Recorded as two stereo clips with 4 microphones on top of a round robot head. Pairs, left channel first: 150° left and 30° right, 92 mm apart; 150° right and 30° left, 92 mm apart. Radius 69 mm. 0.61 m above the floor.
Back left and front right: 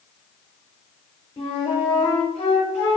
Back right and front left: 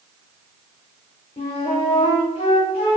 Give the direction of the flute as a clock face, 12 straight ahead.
6 o'clock.